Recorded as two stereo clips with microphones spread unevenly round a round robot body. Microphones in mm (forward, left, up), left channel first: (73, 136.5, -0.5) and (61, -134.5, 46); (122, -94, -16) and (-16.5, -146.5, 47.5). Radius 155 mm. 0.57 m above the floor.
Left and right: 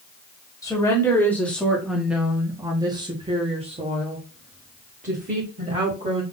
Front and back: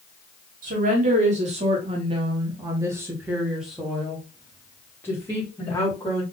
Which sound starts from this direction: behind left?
A woman speaking, at 0.6 s.